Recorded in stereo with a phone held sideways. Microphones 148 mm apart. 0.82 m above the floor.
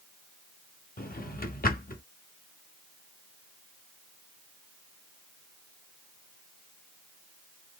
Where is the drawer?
70° left (ahead or behind), 0.6 m.